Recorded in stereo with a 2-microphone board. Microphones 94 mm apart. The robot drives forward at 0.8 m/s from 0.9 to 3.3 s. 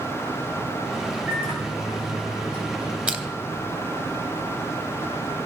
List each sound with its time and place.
1.3 s a microwave: 25° right (ahead or behind), 5 m; by 3.0 s 20° right (ahead or behind), 6 m
3.1 s crushing: 15° right (ahead or behind), 0.9 m